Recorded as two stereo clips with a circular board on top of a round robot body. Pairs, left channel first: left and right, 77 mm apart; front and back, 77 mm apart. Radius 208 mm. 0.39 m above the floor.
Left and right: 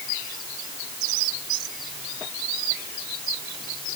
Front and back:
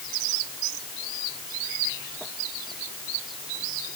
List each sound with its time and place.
Only background noise.